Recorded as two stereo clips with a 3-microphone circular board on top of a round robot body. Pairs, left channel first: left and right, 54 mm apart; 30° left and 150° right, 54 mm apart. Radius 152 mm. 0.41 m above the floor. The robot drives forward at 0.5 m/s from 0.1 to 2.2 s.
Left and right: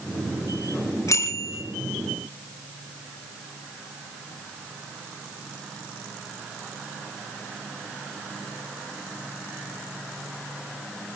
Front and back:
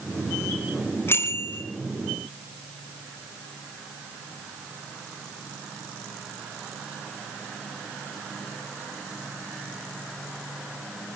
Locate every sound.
1.1 s a bicycle bell: 75° left, 6 m